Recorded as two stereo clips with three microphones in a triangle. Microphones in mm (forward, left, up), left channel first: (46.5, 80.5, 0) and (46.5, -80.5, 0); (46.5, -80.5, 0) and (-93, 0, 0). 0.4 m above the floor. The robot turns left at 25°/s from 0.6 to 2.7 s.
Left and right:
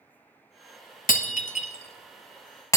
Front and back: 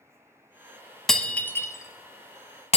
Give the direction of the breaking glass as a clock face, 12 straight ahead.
10 o'clock.